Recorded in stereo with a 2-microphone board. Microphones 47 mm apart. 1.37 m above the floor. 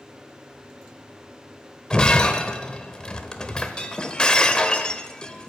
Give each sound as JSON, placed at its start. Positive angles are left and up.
{"t": 1.9, "sound": "breaking glass", "side_deg": 20, "distance_m": 1.1}